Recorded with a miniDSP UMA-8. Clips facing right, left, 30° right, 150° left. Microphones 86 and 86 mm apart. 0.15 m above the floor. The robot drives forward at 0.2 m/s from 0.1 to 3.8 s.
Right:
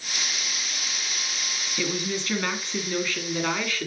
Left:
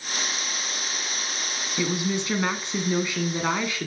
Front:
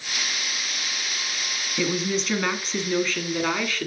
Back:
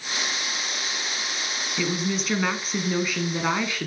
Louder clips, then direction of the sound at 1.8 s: Left 3 dB, front 2 dB; 55° left.